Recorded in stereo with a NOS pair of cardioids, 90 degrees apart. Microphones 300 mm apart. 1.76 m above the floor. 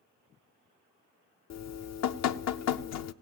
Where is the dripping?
60° left, 0.8 m.